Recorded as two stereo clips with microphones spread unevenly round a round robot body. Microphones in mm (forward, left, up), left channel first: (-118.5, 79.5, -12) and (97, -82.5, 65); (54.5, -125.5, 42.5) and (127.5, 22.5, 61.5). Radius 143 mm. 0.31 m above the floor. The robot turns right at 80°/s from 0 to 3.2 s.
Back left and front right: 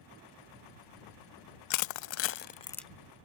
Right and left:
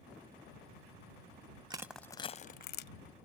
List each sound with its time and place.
1.7 s crushing: 135° left; by 2.9 s 130° right